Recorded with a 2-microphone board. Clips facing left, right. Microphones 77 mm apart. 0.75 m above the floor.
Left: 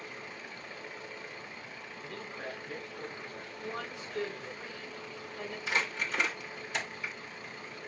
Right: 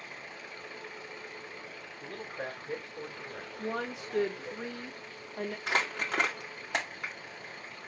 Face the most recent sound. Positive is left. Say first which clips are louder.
# right 1 dB
turn(degrees=-60)  # may be behind; listen again after turning